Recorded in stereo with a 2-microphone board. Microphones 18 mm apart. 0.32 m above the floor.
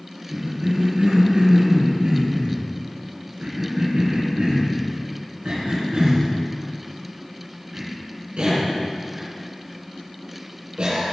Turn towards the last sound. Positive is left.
turn(degrees=-75)  # may be behind; listen again after turning